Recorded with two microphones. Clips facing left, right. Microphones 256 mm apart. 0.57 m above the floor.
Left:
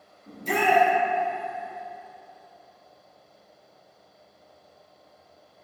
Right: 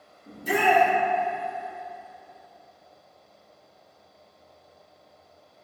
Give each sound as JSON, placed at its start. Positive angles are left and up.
{"t": 0.3, "sound": "a shout", "side_deg": -10, "distance_m": 0.7}